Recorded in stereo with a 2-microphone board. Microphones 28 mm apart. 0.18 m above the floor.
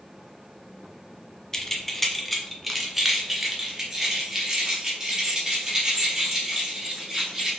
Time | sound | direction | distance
1.5 | keys jangling | 20° left (ahead or behind) | 1.0 m